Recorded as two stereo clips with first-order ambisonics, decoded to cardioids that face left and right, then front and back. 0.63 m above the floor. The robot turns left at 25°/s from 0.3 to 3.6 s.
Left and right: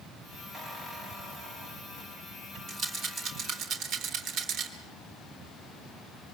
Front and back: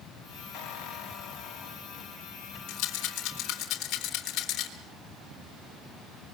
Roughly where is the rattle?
Ahead right.